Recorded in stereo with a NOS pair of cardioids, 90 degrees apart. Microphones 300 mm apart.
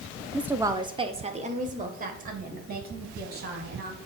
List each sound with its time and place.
0.3 s a woman speaking: straight ahead, 0.9 m; by 4.0 s 30° right, 4 m